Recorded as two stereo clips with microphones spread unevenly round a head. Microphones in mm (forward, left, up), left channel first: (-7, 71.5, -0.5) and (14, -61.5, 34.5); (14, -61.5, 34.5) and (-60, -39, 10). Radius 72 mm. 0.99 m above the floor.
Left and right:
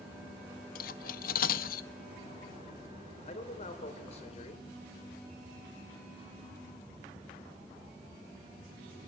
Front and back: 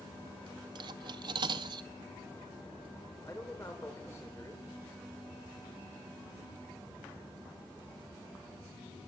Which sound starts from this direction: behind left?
Cutlery clinking, at 0.8 s.